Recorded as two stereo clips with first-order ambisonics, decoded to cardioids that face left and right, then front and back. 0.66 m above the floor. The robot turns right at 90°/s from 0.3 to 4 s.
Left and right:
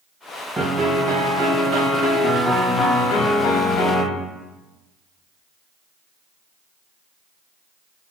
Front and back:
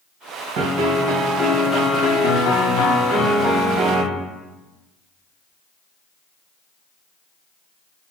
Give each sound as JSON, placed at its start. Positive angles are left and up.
{"t": 0.6, "sound": "a piano", "azimuth_deg": -175, "distance_m": 0.7}